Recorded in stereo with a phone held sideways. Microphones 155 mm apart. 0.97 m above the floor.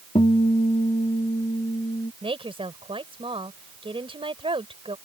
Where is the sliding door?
I don't hear a sliding door.